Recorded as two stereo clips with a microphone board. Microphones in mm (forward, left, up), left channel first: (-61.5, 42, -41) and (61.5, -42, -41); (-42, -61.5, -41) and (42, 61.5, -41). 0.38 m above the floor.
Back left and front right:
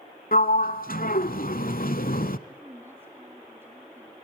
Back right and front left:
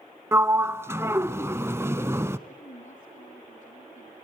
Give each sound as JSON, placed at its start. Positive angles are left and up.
{"t": 0.3, "sound": "a sliding door", "azimuth_deg": 130, "distance_m": 0.8}
{"t": 2.5, "sound": "a woman speaking", "azimuth_deg": -105, "distance_m": 3.0}